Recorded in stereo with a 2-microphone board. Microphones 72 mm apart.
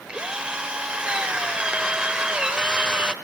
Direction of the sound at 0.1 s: 15° right (ahead or behind).